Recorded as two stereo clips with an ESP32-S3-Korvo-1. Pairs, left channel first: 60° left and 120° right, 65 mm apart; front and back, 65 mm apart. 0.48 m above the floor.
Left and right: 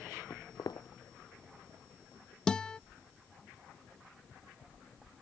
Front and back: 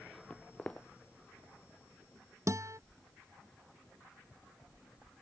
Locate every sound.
0.3 s footsteps: 75° left
2.5 s a guitar: 140° left